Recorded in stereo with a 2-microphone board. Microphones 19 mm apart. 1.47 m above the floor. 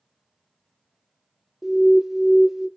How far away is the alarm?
About 0.6 m.